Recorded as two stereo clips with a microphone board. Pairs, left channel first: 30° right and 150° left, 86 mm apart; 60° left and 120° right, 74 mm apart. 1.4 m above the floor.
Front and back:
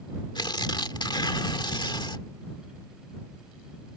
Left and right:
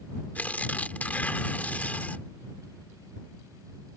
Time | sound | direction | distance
0.3 | tearing paper | 5° right | ?